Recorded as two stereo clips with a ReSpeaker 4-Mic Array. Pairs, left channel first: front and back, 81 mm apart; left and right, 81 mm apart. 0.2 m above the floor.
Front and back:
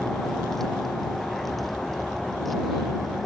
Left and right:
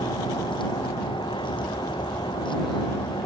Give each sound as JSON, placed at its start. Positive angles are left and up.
{"t": 0.0, "sound": "a vehicle", "azimuth_deg": 85}